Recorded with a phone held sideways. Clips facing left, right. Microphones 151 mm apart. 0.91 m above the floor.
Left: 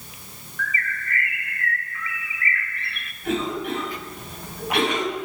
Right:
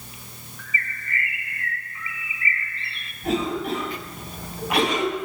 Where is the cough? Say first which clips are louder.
Right 1 dB; 35° right (ahead or behind), 7 m.